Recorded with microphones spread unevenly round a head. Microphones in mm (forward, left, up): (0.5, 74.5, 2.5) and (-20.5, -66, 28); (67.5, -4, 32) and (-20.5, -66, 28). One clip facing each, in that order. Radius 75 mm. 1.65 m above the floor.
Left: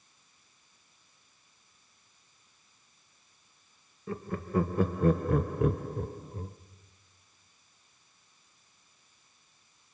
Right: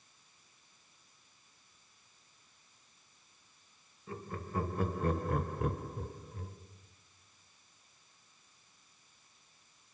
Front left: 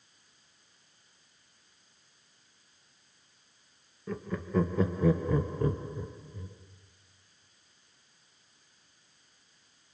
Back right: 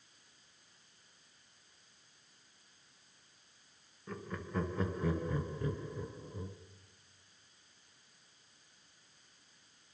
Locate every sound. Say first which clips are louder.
4.1 s laughter: left 8 dB, front left 8 dB; 45° left, 2.5 m; by 6.6 s 150° left, 1.4 m